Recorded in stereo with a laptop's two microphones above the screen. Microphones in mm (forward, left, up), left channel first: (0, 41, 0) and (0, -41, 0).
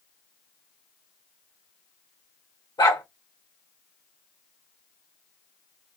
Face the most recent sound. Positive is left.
turn(degrees=65)  # may be behind; listen again after turning